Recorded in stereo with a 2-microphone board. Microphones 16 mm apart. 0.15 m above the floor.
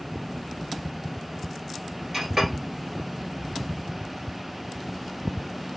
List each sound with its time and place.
2.1 s a clink: 20° right (ahead or behind), 1.7 m